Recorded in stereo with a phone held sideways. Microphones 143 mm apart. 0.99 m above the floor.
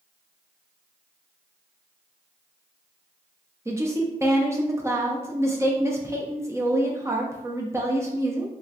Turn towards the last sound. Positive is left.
turn(degrees=-20)  # may be behind; listen again after turning